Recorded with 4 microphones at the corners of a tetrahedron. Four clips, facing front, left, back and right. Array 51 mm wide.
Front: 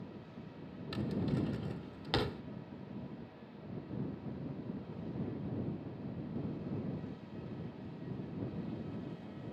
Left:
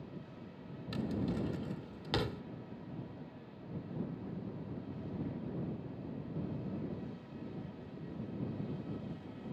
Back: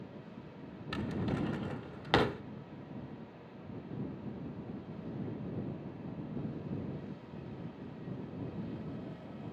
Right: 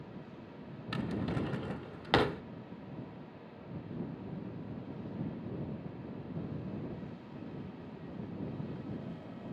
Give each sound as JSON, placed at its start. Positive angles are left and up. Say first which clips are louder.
{"t": 0.9, "sound": "a drawer", "louder": "right 1 dB, even", "azimuth_deg": -130}